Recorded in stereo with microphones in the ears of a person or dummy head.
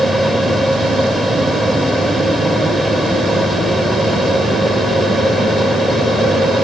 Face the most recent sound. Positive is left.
turn(degrees=0)  # may be behind; listen again after turning